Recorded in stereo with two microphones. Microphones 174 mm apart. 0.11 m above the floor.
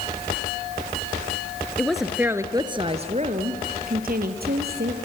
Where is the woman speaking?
5° left (ahead or behind), 1.4 m; by 5.0 s 70° right (ahead or behind), 2.5 m.